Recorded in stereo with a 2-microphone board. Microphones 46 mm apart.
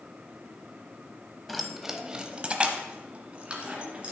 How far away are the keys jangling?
About 0.8 m.